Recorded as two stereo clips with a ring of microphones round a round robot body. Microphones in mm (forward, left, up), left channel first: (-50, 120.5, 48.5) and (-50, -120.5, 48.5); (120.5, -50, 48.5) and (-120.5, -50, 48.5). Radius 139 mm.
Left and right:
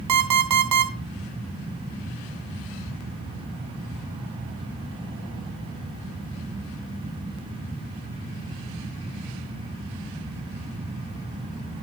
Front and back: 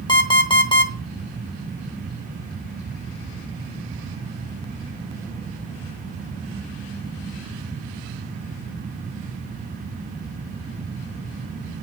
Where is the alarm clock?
70° right, 1.3 m.